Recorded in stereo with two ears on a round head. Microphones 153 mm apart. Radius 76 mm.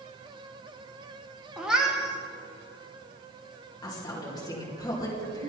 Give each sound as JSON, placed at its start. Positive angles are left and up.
{"t": 1.6, "sound": "a cat meowing", "side_deg": -5, "distance_m": 1.1}
{"t": 3.8, "sound": "a woman speaking", "side_deg": 20, "distance_m": 2.5}